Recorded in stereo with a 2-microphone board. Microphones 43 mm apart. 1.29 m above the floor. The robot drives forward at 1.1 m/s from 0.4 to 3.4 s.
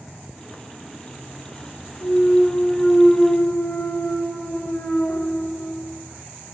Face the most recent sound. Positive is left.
turn(degrees=35)  # may be behind; listen again after turning